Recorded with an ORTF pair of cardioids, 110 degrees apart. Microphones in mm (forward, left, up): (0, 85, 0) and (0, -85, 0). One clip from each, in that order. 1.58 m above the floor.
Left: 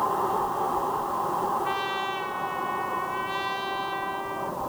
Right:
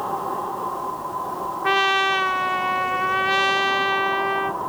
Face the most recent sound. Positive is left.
turn(degrees=-55)